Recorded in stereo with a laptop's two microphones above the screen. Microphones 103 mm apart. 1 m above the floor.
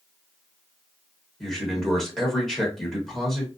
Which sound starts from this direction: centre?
A man speaking, at 1.4 s.